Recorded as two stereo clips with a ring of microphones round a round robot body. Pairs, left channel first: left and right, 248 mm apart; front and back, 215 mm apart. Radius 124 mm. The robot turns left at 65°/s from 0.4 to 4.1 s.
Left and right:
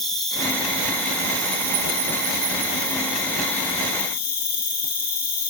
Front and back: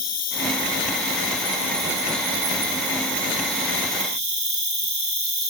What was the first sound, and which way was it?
An insect, straight ahead.